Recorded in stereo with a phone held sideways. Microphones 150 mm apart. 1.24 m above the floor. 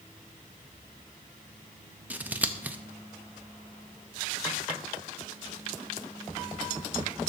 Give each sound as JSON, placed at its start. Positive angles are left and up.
{"t": 2.1, "sound": "scissors", "side_deg": -10, "distance_m": 0.5}